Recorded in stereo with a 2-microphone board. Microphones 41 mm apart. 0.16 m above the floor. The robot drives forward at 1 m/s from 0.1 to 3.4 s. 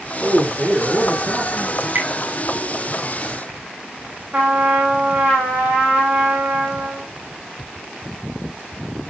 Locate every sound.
0.2 s a man speaking: 40° right (ahead or behind), 4.5 m; by 1.7 s 55° right (ahead or behind), 3.5 m
1.8 s dripping: 60° right (ahead or behind), 6.5 m; by 2.1 s 55° right (ahead or behind), 7 m
4.3 s a trumpet: 35° right (ahead or behind), 8 m